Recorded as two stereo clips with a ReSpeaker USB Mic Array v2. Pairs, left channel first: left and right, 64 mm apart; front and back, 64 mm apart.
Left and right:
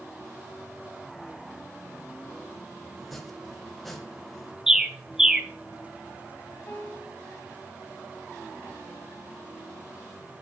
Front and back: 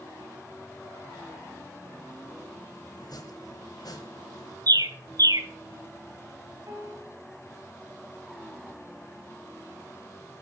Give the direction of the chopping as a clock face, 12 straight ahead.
12 o'clock.